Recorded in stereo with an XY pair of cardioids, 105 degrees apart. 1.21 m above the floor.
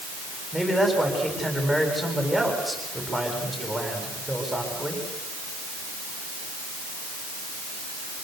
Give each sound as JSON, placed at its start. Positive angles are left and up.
{"t": 0.5, "sound": "a man speaking", "azimuth_deg": -10, "distance_m": 8.5}